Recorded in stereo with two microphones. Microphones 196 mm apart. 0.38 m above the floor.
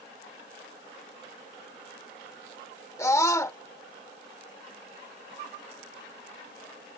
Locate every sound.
3.0 s a scream: 15° left (ahead or behind)